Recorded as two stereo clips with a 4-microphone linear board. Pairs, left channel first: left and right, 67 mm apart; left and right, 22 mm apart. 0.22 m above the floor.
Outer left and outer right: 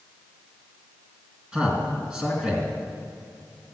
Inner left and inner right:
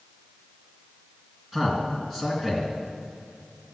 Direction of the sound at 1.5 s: 15° right (ahead or behind).